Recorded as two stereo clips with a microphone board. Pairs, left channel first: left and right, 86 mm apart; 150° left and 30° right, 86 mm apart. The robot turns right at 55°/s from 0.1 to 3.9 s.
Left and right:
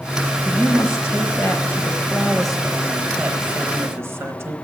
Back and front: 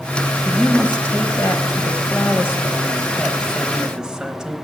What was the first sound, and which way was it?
A woman speaking, 65° left.